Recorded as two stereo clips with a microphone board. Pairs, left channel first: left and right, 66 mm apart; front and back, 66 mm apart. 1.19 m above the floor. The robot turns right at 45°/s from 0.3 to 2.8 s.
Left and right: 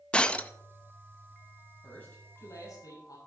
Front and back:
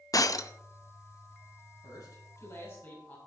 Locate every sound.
0.1 s breaking glass: 15° left, 0.7 m; by 0.5 s 25° left, 0.7 m
1.8 s a man speaking: 15° left, 7.5 m; by 3.2 s 60° left, 7.5 m